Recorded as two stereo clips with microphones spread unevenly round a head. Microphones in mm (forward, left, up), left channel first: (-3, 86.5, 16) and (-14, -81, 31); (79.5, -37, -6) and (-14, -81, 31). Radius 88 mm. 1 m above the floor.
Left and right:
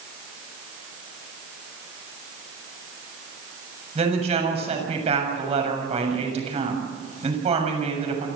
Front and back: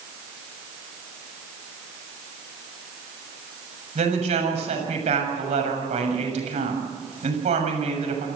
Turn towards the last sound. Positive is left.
turn(degrees=-150)